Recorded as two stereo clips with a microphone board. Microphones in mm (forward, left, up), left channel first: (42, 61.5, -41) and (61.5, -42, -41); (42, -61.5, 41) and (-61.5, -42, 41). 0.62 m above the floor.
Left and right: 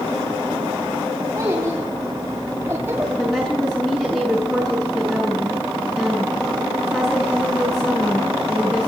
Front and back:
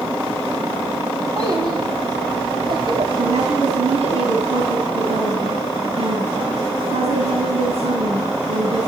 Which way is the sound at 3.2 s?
170° right.